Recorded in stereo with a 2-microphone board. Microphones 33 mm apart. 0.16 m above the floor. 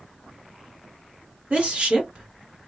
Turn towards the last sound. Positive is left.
turn(degrees=-35)  # may be behind; listen again after turning